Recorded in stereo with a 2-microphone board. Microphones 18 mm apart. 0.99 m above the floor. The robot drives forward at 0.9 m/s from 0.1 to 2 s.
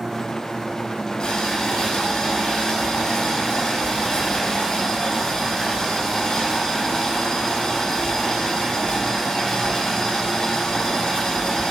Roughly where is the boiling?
Left.